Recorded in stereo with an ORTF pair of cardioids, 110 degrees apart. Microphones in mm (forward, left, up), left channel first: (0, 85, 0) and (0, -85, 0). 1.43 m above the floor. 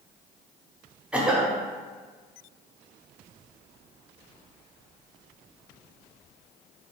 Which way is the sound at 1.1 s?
5° right.